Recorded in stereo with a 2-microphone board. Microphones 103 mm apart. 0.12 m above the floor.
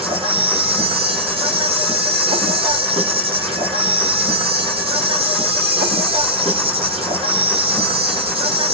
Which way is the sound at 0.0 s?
70° right (ahead or behind).